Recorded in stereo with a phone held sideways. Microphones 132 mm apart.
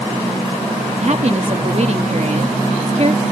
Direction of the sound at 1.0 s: 55° right (ahead or behind).